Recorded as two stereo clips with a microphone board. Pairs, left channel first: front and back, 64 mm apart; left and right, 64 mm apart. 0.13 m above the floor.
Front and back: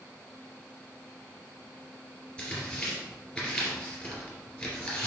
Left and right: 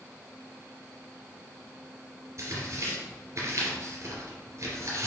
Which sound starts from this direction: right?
Tearing paper, at 2.4 s.